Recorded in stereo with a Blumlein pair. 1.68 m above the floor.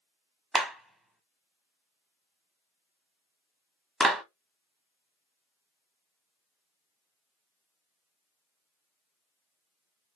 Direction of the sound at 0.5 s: Straight ahead.